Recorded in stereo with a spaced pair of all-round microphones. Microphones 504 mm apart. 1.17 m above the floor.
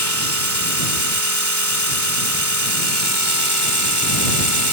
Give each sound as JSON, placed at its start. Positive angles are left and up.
{"t": 0.0, "sound": "a machine running", "side_deg": 35}